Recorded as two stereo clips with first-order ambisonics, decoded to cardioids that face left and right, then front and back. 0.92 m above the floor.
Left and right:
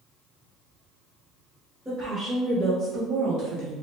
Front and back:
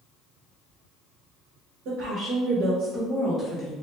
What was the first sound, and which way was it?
A woman speaking, 170° right.